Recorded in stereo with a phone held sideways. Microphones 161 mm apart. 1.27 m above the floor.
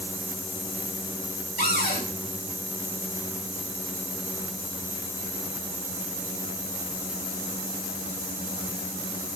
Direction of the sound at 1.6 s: 70° left (ahead or behind).